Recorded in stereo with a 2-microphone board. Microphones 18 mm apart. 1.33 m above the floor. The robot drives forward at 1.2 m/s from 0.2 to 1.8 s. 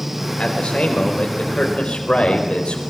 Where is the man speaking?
85° left, 4 m; by 2.8 s 65° left (ahead or behind), 4.5 m.